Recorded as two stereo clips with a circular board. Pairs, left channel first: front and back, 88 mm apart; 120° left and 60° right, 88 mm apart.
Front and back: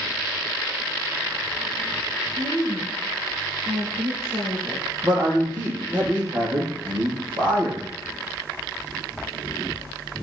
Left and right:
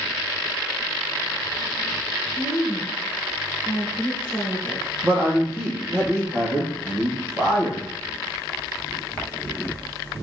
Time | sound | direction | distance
2.4 | a woman speaking | 140° right | 4 m
5.0 | a man speaking | 125° right | 7 m